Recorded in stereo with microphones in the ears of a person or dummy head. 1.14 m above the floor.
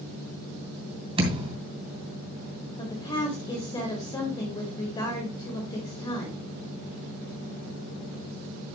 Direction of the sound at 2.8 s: 25° left (ahead or behind).